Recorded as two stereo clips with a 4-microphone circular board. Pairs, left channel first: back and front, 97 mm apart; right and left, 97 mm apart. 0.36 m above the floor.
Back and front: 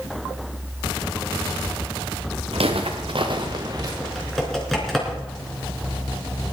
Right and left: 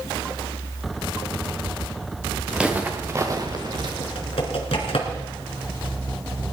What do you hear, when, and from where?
2.5 s footsteps: 5° left, 2 m; by 3.9 s 50° left, 2.5 m
4.0 s typing on a keyboard: 95° right, 3 m